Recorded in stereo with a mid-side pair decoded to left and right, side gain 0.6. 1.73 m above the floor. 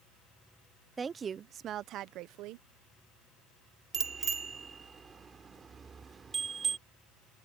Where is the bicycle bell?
30° right.